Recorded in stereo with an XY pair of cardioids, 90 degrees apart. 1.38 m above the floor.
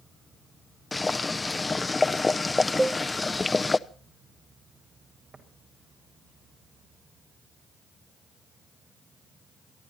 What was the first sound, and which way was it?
Boiling, 25° left.